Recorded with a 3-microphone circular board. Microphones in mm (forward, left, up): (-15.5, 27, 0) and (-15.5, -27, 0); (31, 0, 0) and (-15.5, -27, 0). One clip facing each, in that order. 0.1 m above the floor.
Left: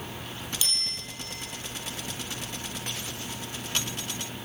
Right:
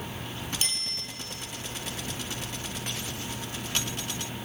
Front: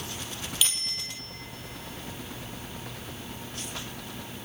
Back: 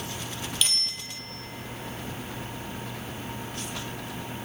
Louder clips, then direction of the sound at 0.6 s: Left 1 dB, back 1 dB; 55° right.